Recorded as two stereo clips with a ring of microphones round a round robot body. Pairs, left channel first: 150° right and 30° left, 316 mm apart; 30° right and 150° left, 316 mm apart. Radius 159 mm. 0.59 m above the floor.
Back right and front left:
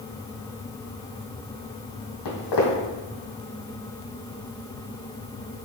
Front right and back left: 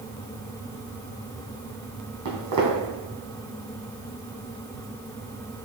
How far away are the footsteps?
About 1.5 m.